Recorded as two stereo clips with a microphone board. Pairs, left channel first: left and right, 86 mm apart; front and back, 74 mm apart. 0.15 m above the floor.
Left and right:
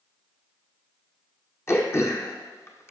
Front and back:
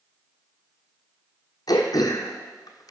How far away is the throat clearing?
About 1.0 m.